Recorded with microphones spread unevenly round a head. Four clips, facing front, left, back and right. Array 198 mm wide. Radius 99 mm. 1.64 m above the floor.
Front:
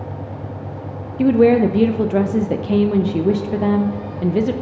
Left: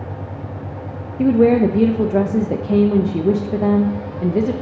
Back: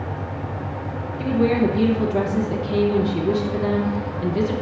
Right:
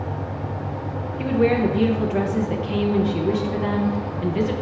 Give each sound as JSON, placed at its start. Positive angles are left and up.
{"t": 1.2, "sound": "a woman speaking", "azimuth_deg": 45, "distance_m": 0.6}